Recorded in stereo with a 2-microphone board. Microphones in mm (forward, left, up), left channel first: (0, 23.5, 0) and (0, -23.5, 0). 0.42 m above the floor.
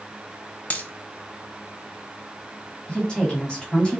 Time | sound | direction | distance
0.7 | a dropped coin | 30° left (ahead or behind) | 0.6 m
2.9 | a woman speaking | 20° left (ahead or behind) | 1.9 m